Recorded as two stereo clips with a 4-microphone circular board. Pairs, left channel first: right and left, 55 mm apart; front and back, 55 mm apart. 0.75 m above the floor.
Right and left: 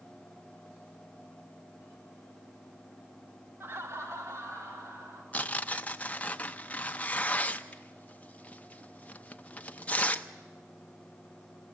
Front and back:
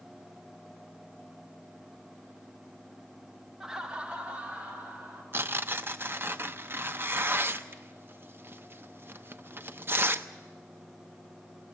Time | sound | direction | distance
3.6 | laughter | 100° left | 0.7 m
5.3 | tearing paper | 145° right | 0.7 m